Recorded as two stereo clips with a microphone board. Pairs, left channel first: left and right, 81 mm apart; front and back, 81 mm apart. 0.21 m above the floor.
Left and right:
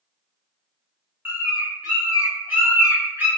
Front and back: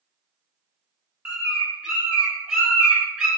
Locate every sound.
1.2 s a bird: 115° right, 1.3 m